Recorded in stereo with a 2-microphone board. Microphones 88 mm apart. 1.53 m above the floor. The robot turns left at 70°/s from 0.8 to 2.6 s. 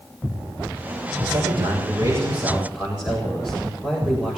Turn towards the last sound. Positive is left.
turn(degrees=-170)